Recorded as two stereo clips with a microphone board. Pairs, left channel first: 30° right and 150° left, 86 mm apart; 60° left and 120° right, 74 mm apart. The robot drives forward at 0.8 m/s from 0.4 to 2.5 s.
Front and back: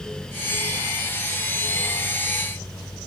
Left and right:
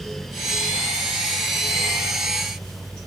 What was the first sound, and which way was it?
Only background noise.